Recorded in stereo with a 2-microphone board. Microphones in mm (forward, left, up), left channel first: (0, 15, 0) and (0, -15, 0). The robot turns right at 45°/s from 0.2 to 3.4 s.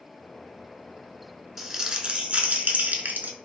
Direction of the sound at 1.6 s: 170° right.